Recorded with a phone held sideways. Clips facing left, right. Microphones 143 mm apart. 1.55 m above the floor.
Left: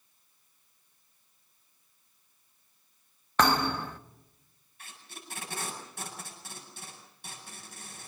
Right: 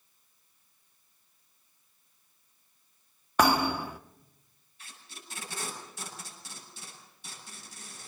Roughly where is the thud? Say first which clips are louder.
Right 1 dB; centre.